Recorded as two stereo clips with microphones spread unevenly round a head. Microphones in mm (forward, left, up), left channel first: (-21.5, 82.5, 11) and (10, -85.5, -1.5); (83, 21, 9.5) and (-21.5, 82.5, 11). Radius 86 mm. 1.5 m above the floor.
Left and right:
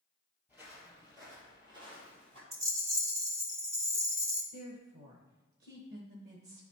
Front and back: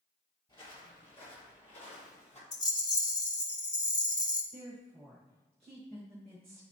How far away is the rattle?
About 0.9 m.